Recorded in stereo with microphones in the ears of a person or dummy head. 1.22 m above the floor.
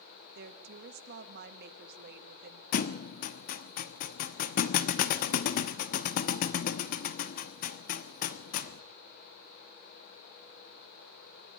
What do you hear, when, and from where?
0.3 s a woman speaking: 60° right (ahead or behind), 1.6 m
2.7 s a thud: 50° left (ahead or behind), 0.9 m